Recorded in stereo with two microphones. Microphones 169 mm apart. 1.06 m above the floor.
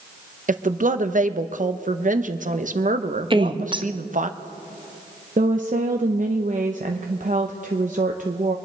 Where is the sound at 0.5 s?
50° right (ahead or behind), 0.8 m.